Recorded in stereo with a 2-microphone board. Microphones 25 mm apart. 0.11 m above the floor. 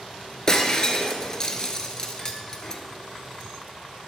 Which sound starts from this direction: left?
Breaking glass, at 0.5 s.